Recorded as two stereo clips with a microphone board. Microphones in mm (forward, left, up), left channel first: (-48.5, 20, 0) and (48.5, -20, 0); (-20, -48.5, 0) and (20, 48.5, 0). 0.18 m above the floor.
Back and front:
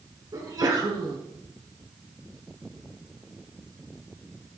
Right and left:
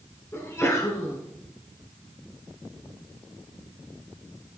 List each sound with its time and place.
0.3 s a sneeze: 60° right, 1.6 m